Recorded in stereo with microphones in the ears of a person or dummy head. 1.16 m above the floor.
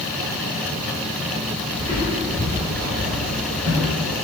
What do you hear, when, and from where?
1.8 s footsteps: 10° left (ahead or behind), 1.4 m; by 3.9 s 35° right (ahead or behind), 1.5 m